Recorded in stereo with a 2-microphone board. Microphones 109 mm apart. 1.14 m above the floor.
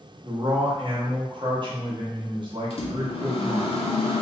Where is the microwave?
60° left (ahead or behind), 0.9 m.